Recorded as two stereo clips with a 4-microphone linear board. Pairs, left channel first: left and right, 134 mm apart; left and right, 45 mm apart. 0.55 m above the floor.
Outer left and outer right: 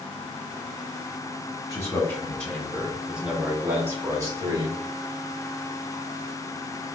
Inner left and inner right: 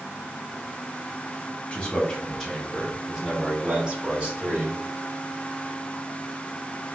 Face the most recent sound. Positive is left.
turn(degrees=-30)  # may be behind; listen again after turning